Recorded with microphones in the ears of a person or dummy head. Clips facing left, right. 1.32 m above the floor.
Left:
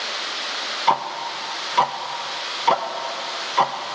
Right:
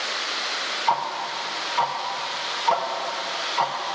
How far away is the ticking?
About 0.5 m.